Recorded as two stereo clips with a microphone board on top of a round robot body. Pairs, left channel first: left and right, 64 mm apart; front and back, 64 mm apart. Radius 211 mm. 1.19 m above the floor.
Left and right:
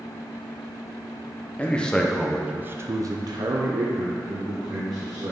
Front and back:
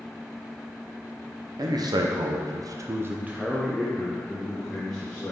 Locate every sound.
1.6 s a man speaking: 160° left, 1.1 m; by 5.3 s 75° right, 2.0 m